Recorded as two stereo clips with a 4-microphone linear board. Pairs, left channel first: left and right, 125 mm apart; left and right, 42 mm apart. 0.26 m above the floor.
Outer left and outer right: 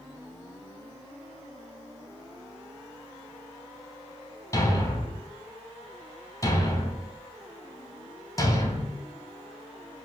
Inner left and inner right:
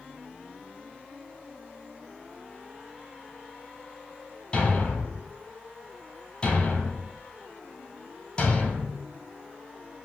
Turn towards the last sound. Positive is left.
turn(degrees=25)  # may be behind; listen again after turning